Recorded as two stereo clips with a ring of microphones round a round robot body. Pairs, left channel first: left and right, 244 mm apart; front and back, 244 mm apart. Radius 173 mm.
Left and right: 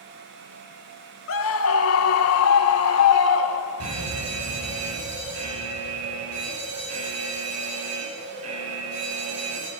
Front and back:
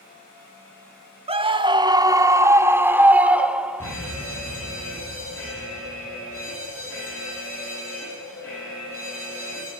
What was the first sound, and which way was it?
A scream, 115° left.